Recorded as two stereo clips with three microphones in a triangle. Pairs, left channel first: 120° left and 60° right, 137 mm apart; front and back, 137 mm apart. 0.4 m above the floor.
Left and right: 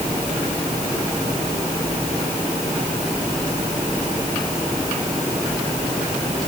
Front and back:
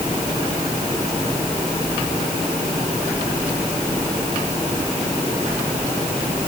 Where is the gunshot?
I don't hear a gunshot.